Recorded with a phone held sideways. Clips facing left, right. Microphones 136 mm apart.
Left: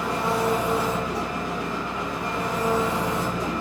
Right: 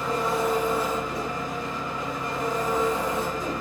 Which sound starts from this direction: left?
An engine running, at 0.0 s.